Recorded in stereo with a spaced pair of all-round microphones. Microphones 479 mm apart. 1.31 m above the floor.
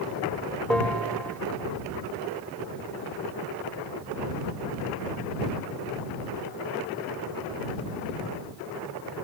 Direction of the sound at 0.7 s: Centre (ahead or behind).